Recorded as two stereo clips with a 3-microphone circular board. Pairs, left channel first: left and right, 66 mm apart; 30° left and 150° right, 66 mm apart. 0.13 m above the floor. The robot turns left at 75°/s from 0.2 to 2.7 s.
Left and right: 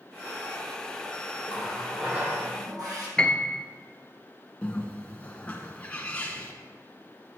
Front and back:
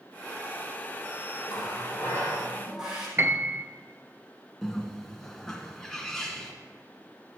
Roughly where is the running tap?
Ahead left.